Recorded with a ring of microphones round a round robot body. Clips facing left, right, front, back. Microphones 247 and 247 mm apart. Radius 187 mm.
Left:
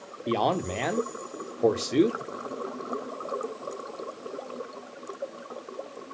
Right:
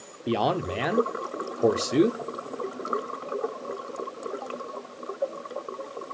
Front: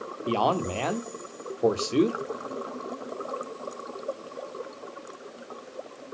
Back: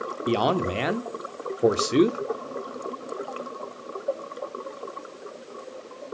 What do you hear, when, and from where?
0.3 s a man speaking: 165° right, 0.7 m